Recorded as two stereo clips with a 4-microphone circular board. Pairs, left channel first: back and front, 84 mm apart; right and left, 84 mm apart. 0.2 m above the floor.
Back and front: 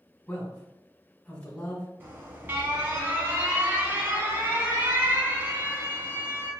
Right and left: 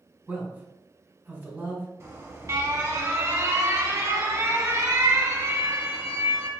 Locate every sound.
0.3 s a man speaking: 125° left, 1.4 m
2.0 s an alarm: 50° left, 1.0 m